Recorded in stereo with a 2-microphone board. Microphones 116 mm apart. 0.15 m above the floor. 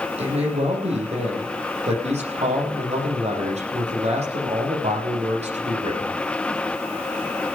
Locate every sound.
0.2 s a man speaking: 70° right (ahead or behind), 7 m